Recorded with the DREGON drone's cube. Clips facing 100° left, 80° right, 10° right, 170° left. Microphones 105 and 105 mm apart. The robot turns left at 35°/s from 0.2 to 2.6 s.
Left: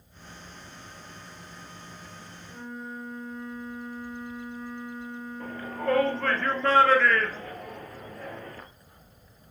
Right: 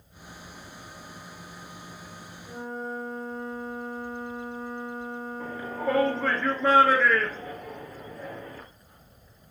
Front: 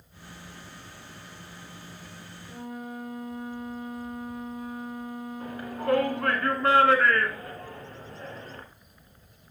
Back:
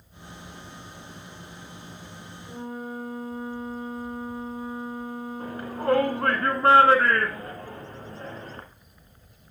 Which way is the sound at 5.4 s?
155° right.